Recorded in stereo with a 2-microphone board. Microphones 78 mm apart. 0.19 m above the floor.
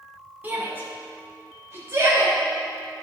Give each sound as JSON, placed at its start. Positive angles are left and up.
{"t": 0.4, "sound": "a shout", "side_deg": -20, "distance_m": 1.6}